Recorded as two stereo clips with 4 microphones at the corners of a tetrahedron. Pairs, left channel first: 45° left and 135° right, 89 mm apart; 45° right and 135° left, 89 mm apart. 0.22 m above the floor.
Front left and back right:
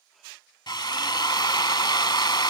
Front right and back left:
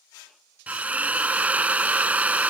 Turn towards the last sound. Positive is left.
turn(degrees=65)